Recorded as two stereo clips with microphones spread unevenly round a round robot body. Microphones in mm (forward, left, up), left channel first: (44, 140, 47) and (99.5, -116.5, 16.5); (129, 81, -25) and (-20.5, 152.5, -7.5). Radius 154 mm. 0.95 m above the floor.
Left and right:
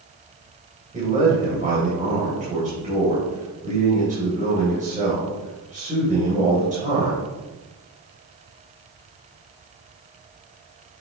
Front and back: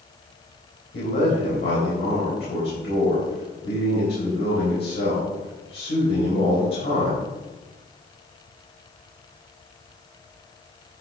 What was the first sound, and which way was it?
A man speaking, 15° right.